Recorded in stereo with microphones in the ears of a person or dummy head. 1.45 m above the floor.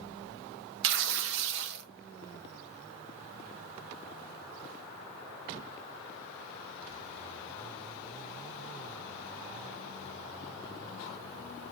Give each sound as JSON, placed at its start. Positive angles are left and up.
{"t": 0.8, "sound": "tearing paper", "side_deg": -65, "distance_m": 0.7}